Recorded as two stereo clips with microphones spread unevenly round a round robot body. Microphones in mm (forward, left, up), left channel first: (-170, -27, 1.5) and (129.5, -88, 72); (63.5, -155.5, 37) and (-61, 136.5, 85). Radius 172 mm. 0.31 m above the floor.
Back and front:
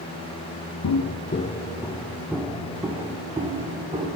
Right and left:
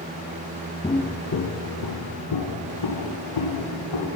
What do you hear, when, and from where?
0.8 s footsteps: 150° right, 0.7 m; by 4.1 s 80° right, 2.5 m